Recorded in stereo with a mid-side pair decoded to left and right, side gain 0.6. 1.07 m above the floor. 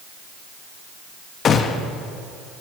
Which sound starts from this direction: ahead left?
A gunshot, at 1.4 s.